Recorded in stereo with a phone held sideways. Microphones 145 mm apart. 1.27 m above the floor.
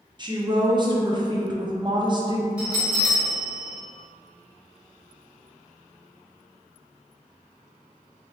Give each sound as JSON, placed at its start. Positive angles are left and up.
{"t": 0.2, "sound": "a woman speaking", "side_deg": -30, "distance_m": 0.6}
{"t": 2.6, "sound": "a bell", "side_deg": -10, "distance_m": 1.4}